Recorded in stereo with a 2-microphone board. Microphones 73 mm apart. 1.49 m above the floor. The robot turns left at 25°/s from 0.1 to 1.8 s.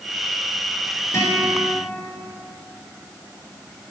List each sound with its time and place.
1.1 s a guitar: 45° left (ahead or behind), 4.5 m; by 1.7 s 35° left (ahead or behind), 4.5 m